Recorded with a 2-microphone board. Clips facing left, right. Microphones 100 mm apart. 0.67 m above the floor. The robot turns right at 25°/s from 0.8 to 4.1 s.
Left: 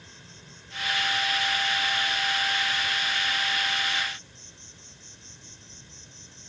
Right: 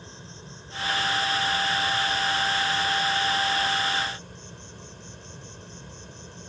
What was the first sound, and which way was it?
An insect, 145° right.